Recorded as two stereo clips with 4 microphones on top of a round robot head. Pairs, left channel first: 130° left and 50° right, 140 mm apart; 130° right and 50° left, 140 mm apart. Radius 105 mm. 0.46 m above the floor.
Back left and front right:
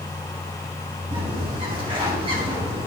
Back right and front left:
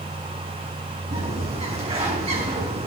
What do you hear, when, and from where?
1.1 s a bird: 5° left, 5 m